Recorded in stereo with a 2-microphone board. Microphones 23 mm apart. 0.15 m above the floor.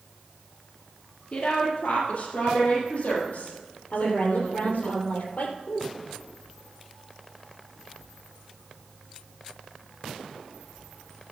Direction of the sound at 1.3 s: 60° left (ahead or behind).